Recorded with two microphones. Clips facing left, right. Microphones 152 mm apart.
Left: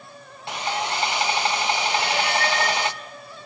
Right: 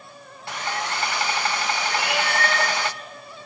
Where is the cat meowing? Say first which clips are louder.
Left 1 dB; 80° right, 5 m.